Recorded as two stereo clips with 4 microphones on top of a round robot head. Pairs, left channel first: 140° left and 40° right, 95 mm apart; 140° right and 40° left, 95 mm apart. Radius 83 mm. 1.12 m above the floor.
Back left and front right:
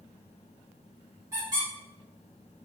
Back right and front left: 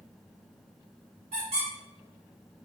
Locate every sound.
1.3 s a squeak: 15° left, 1.2 m